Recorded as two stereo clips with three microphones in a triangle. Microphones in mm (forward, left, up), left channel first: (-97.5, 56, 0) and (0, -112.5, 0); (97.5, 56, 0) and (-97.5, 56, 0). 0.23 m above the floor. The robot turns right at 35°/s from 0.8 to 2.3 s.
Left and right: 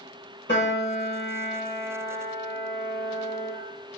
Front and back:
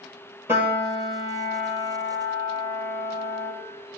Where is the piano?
100° left, 1.7 m; by 3.5 s 155° left, 1.7 m.